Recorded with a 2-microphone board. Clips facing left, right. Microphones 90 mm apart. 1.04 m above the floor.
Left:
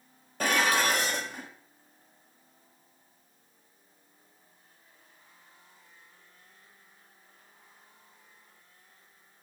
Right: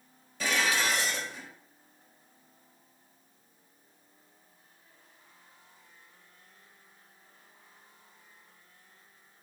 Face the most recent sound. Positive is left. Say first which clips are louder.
# left 3 dB
turn(degrees=50)  # may be behind; listen again after turning